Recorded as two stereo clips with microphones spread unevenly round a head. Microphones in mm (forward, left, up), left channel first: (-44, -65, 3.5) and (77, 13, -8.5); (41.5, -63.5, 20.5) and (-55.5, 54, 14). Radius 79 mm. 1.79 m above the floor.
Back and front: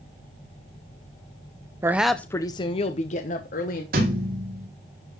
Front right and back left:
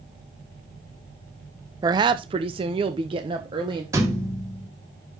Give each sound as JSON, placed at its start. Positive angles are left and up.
{"t": 1.8, "sound": "a woman speaking", "azimuth_deg": 90, "distance_m": 0.6}
{"t": 3.9, "sound": "a thud", "azimuth_deg": 60, "distance_m": 2.0}